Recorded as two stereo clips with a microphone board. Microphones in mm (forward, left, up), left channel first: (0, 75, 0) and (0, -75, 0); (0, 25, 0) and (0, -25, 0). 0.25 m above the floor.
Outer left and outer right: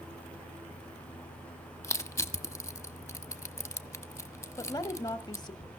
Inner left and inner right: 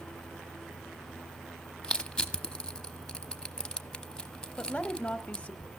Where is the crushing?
20° left (ahead or behind), 1.1 m.